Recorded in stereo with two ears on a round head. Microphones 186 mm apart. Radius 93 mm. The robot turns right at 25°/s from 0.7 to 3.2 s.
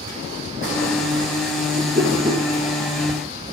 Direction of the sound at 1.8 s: 35° right (ahead or behind).